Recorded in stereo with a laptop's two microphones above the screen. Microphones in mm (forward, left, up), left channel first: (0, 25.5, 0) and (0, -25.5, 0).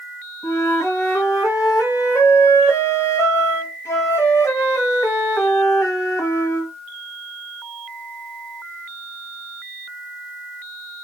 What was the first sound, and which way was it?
A flute, 75° left (ahead or behind).